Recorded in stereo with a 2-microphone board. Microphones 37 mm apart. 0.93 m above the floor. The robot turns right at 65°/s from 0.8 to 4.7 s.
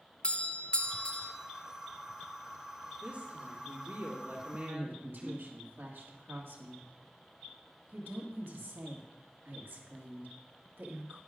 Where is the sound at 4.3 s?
75° right (ahead or behind), 1.7 m; by 11.2 s 65° right (ahead or behind), 1.7 m.